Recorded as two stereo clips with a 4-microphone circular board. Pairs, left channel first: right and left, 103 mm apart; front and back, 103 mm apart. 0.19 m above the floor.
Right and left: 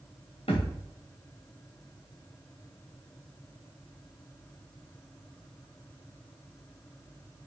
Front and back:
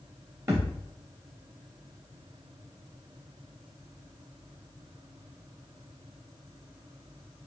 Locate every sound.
0.5 s a thud: 115° right, 2.5 m